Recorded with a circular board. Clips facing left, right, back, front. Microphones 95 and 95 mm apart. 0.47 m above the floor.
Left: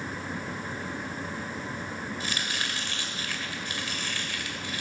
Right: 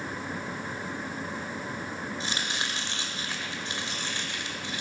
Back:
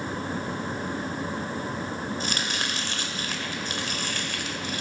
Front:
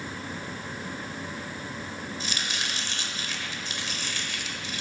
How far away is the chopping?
About 1.6 m.